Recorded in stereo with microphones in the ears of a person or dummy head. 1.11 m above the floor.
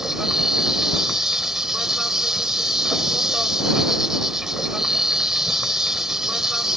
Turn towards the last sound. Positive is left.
turn(degrees=-5)  # may be behind; listen again after turning